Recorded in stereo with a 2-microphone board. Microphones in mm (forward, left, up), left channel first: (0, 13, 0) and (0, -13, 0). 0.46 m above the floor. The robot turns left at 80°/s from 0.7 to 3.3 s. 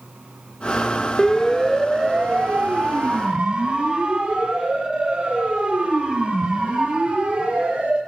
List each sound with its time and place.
1.2 s a siren: 25° left (ahead or behind), 2 m; by 8.0 s 50° right (ahead or behind), 8.5 m